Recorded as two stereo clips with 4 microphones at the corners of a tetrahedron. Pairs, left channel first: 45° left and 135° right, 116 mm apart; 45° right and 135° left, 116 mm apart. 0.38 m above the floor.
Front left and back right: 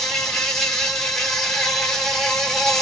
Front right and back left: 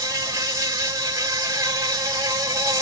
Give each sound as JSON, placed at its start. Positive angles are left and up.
{"t": 0.0, "sound": "an insect", "azimuth_deg": 125, "distance_m": 0.8}